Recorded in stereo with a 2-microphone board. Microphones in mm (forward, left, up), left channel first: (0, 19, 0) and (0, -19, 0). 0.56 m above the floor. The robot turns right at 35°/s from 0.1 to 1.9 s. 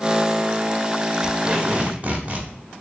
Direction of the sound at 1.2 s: 20° right (ahead or behind).